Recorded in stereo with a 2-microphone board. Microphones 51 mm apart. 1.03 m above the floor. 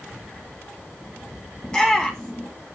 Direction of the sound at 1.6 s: 15° left (ahead or behind).